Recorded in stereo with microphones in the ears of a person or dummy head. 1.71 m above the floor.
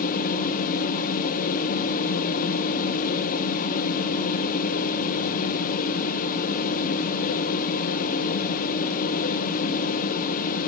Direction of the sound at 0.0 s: 45° left (ahead or behind).